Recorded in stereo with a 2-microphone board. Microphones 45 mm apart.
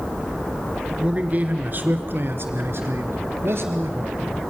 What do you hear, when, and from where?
1.0 s a man speaking: 30° right (ahead or behind), 2.5 m; by 4.2 s 60° right (ahead or behind), 3.5 m